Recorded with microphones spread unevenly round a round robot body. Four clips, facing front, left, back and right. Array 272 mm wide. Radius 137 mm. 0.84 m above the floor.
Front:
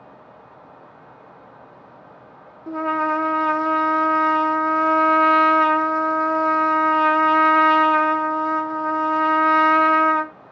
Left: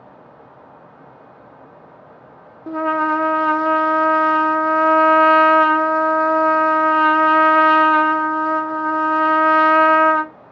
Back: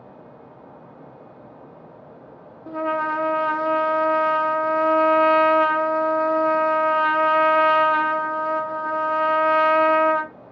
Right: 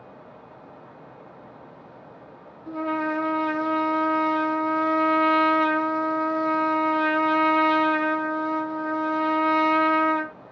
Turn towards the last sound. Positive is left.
turn(degrees=65)